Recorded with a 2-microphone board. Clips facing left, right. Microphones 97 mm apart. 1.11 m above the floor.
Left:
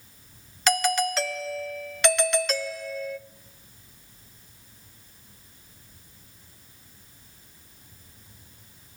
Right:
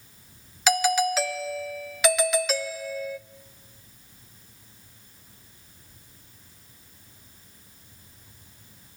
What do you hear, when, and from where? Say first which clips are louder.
0.7 s a doorbell: right 2 dB; 5° right (ahead or behind), 0.6 m